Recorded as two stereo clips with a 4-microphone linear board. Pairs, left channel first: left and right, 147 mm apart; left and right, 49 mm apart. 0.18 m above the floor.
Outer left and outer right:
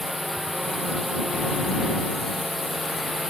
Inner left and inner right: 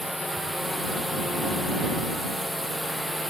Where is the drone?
Centre (ahead or behind).